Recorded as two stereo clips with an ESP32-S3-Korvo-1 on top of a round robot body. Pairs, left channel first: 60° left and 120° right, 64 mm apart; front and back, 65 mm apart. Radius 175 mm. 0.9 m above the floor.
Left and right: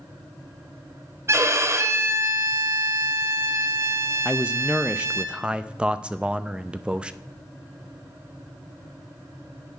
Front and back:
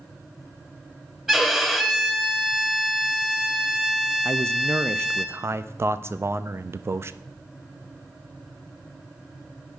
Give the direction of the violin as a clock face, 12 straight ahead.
3 o'clock.